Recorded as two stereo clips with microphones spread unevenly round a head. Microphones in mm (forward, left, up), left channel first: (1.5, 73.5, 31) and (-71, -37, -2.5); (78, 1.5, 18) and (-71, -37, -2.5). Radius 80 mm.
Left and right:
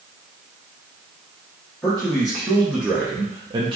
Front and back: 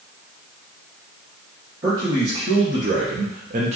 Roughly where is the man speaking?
Behind left.